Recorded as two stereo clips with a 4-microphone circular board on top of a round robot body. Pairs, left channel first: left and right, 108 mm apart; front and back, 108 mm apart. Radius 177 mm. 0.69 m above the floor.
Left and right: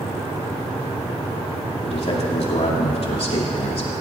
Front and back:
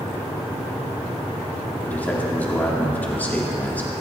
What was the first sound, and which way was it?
A man speaking, 75° left.